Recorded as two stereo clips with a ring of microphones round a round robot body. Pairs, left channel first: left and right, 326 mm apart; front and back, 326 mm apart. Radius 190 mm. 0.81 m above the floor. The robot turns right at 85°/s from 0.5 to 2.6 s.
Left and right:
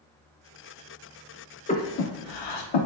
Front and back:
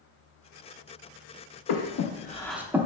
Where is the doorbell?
No doorbell in this recording.